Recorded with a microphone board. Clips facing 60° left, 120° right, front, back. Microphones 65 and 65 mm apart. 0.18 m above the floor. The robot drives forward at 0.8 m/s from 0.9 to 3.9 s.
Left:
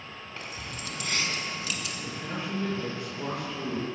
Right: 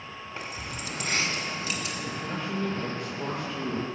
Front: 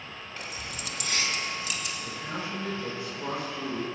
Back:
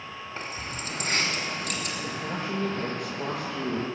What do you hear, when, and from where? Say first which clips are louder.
0.4 s keys jangling: right 2 dB, back 3 dB; 175° right, 1.2 m
2.0 s a man speaking: even, back 3 dB; 140° left, 4.5 m; by 3.9 s 150° left, 5.5 m